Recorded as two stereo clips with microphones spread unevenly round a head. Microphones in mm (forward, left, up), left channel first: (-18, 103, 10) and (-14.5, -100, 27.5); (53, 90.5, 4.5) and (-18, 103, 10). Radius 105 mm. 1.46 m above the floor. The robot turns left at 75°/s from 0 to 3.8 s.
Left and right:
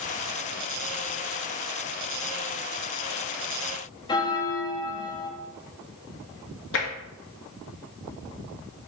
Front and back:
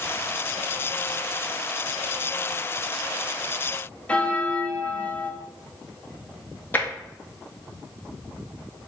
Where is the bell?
40° left, 0.9 m.